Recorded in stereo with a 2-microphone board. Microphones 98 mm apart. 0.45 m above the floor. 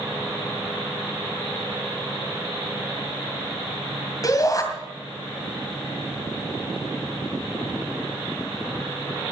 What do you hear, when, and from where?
4.2 s a shout: 40° left (ahead or behind), 2.5 m